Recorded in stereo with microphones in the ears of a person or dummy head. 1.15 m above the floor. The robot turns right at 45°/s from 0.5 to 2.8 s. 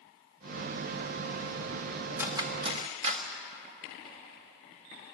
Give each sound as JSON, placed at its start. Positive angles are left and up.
{"t": 2.2, "sound": "cutlery clinking", "side_deg": -5, "distance_m": 1.6}